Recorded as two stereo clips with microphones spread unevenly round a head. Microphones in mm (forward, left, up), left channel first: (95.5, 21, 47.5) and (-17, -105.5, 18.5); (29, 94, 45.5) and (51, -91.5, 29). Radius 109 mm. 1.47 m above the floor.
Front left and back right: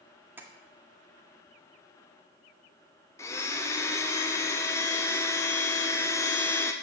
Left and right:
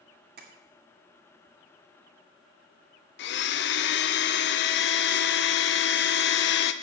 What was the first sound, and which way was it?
Tapping, 50° right.